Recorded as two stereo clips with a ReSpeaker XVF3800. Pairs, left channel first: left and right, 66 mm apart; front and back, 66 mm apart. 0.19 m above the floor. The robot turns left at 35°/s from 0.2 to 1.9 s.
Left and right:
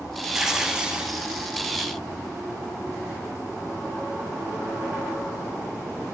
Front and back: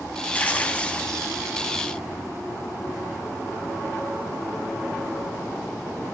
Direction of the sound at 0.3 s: 20° right.